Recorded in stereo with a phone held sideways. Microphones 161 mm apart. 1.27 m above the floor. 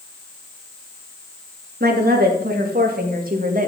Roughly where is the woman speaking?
Right.